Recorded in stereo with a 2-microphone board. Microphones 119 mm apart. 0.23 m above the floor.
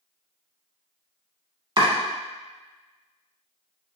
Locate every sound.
1.8 s chopping: 40° right (ahead or behind), 0.8 m